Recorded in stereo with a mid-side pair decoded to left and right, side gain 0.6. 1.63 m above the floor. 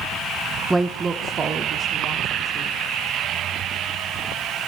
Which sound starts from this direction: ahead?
A woman speaking, at 0.7 s.